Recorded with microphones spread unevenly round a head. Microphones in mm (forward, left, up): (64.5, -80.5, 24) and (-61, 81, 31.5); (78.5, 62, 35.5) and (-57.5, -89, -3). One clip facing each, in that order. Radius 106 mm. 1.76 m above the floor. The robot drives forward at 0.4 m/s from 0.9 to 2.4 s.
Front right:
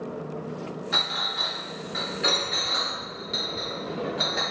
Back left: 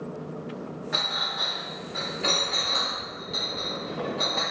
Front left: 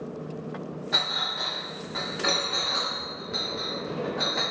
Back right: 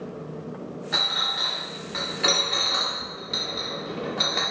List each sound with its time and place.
0.9 s a clink: 40° right, 0.8 m; by 4.4 s 125° right, 0.7 m